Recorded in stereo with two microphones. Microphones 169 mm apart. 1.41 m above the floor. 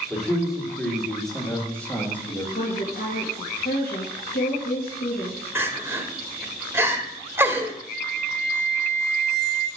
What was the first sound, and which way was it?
A man speaking, 5° right (ahead or behind).